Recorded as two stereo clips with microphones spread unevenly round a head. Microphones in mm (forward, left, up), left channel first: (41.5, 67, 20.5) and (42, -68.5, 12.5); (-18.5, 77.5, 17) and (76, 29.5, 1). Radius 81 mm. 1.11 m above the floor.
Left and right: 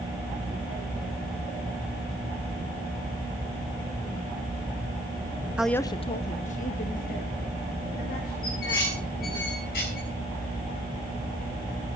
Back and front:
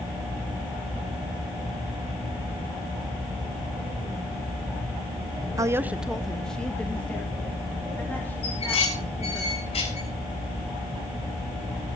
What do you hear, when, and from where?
5.6 s a woman speaking: 15° right, 0.7 m; by 9.4 s 80° left, 5.5 m
8.4 s dishes clattering: 130° left, 6 m